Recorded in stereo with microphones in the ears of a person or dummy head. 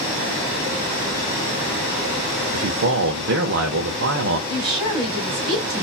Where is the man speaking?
65° right (ahead or behind), 0.6 m.